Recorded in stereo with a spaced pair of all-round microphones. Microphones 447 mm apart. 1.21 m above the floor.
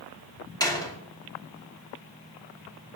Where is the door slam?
10° left (ahead or behind), 2.5 m.